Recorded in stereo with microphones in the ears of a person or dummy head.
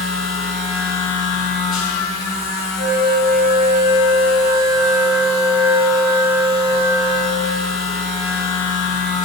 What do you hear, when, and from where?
0.0 s a machine running: 45° left (ahead or behind), 2 m
2.8 s a flute: 55° right (ahead or behind), 3.5 m